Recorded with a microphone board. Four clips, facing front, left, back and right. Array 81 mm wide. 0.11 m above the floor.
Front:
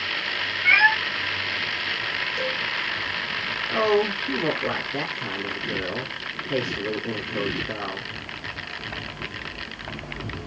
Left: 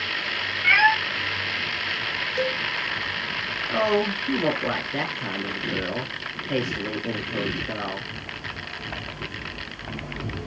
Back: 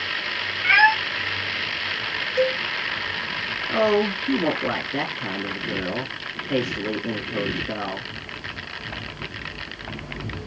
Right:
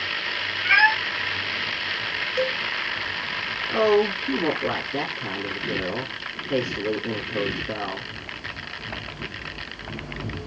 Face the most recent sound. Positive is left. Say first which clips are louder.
# right 3 dB, back 1 dB
turn(degrees=160)